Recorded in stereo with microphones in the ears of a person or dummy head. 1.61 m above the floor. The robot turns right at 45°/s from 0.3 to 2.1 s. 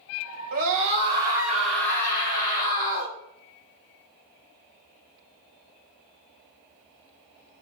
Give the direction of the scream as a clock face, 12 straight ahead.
2 o'clock.